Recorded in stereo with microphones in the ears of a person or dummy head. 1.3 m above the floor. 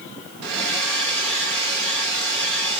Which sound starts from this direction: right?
A hair dryer, at 0.4 s.